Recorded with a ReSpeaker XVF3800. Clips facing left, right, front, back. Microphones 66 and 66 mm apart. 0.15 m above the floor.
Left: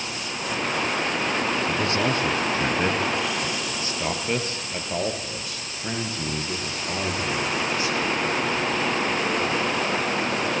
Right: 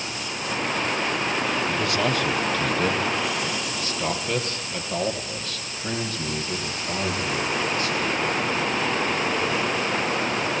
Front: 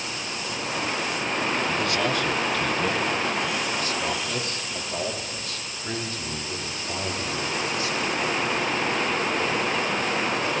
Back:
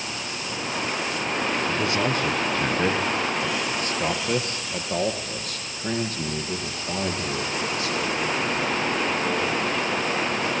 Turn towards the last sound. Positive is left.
turn(degrees=165)